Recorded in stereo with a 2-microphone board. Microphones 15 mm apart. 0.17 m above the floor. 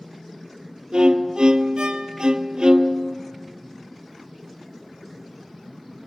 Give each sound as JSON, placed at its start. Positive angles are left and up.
{"t": 0.9, "sound": "a violin", "side_deg": -80, "distance_m": 0.7}